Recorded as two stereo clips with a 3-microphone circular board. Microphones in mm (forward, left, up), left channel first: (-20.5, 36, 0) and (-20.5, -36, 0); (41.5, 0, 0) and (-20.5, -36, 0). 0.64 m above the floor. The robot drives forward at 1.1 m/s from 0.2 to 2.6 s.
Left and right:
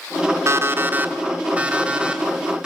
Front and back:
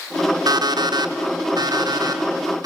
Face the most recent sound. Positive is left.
turn(degrees=-170)